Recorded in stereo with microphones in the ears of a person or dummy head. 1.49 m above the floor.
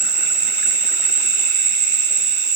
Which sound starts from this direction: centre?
An insect, at 0.0 s.